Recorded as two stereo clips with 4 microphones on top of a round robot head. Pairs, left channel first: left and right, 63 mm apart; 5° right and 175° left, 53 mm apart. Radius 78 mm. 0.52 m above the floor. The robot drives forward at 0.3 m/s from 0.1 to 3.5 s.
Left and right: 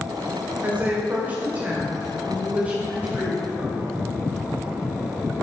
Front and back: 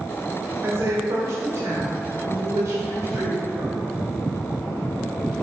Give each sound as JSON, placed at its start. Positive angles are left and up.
{"t": 0.6, "sound": "a woman speaking", "azimuth_deg": -150, "distance_m": 2.0}